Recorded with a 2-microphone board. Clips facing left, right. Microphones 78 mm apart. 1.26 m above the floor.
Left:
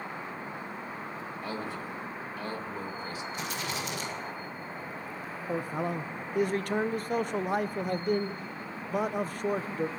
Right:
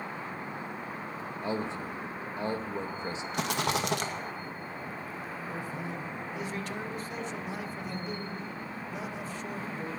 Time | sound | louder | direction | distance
1.4 | a man speaking | right 4 dB | 25° right (ahead or behind) | 1.7 m
3.3 | a rattle | right 8 dB | 65° right (ahead or behind) | 2 m
5.5 | a man speaking | left 9 dB | 50° left (ahead or behind) | 0.8 m